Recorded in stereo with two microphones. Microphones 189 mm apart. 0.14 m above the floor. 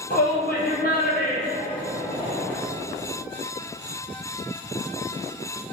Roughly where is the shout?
Left.